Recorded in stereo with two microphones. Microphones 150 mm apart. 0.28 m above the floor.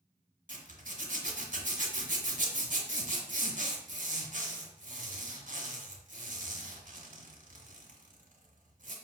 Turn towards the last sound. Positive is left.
turn(degrees=-65)  # may be behind; listen again after turning